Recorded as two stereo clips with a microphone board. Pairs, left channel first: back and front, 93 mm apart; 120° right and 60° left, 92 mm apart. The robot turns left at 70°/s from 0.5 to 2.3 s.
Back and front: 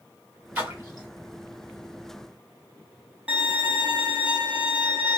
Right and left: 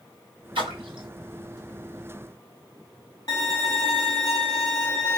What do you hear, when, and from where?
0.6 s a splash: 75° left, 2 m; by 1.1 s 35° left, 2 m
3.3 s a violin: 75° right, 1.3 m